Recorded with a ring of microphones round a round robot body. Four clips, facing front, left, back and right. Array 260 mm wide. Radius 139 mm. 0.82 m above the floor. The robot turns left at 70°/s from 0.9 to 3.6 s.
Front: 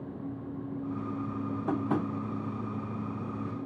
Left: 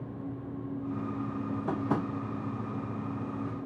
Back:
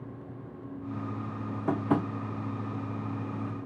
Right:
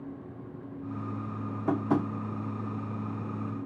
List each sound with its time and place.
1.7 s tapping: 135° right, 0.7 m; by 2.1 s 165° right, 0.7 m